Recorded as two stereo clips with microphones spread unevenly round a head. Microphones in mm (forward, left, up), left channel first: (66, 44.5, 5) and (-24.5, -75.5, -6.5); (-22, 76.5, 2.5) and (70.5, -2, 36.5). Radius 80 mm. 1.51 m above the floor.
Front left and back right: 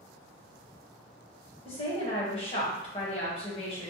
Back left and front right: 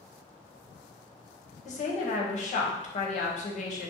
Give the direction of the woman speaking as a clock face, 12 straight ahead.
8 o'clock.